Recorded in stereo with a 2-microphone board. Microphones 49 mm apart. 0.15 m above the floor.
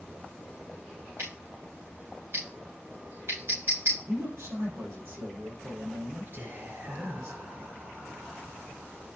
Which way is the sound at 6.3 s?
50° right (ahead or behind).